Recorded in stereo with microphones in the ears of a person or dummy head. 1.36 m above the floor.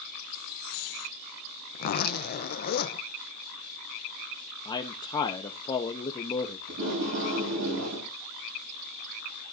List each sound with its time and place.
1.7 s a zipper: 45° left (ahead or behind), 0.8 m
4.7 s a man speaking: 20° left (ahead or behind), 0.9 m
6.7 s tape being pulled: 75° right (ahead or behind), 9.5 m